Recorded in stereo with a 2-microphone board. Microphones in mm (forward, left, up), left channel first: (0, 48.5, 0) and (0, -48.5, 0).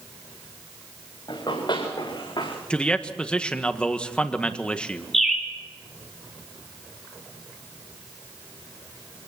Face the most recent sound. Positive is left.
turn(degrees=0)  # may be behind; listen again after turning